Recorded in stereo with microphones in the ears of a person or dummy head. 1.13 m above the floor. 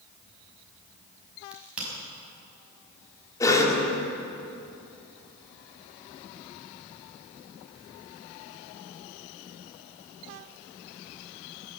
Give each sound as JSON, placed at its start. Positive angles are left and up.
{"t": 1.5, "sound": "a crack", "side_deg": -10, "distance_m": 5.5}
{"t": 3.4, "sound": "a cough", "side_deg": 20, "distance_m": 3.0}